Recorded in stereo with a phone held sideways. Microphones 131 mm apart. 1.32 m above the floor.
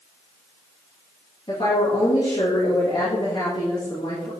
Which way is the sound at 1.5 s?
35° left (ahead or behind).